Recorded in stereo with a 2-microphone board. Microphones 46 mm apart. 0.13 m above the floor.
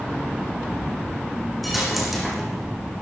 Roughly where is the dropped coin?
Centre.